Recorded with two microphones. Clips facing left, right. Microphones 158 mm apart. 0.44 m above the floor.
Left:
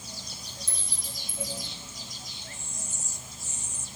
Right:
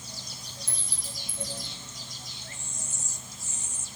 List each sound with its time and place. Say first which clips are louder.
0.7 s a clink: even; 65° right (ahead or behind), 1.8 m